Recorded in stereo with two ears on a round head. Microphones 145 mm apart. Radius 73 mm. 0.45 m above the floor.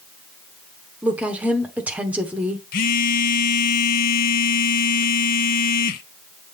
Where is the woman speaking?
10° right (ahead or behind), 0.9 m.